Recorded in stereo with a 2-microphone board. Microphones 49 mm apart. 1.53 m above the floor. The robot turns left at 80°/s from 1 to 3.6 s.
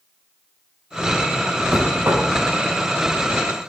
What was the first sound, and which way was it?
Knocking, 35° right.